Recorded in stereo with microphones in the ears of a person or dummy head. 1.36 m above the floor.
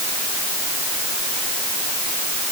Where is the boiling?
No boiling in this recording.